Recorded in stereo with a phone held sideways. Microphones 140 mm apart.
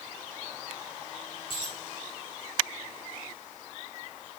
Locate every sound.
1.5 s a dropped coin: 40° left (ahead or behind), 8 m